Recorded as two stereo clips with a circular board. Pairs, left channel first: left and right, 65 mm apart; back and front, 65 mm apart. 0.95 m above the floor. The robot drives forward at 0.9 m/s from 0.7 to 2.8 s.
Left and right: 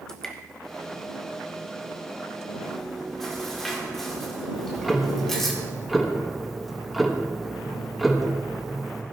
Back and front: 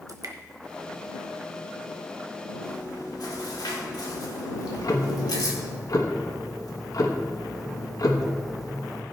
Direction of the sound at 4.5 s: Straight behind.